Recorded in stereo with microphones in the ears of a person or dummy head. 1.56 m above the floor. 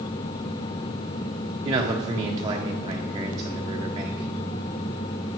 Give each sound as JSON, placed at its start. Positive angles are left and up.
{"t": 1.6, "sound": "a man speaking", "side_deg": -20, "distance_m": 0.7}